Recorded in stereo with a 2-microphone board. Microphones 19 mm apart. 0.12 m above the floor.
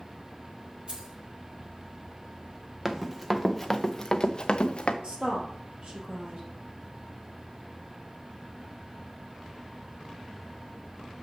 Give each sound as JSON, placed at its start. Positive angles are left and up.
{"t": 0.9, "sound": "keys jangling", "side_deg": -60, "distance_m": 2.5}
{"t": 2.9, "sound": "running footsteps", "side_deg": -15, "distance_m": 1.0}
{"t": 5.0, "sound": "a woman speaking", "side_deg": -60, "distance_m": 2.5}